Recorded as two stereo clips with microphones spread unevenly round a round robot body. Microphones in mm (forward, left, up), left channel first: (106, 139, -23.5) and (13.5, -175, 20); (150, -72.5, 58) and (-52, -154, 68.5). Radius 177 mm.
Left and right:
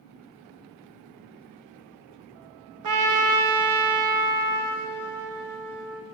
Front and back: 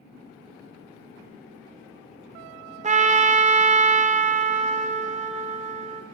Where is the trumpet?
105° right, 0.6 m.